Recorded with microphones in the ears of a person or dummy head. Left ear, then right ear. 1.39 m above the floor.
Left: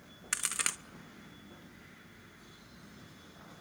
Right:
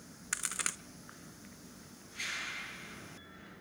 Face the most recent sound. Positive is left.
turn(degrees=5)  # may be behind; listen again after turning